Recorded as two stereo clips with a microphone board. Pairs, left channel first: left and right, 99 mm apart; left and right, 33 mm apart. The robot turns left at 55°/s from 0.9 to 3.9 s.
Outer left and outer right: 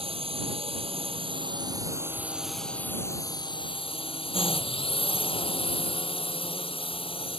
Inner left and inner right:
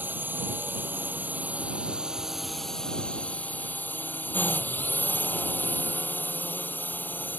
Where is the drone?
90° right; by 7.4 s 105° left.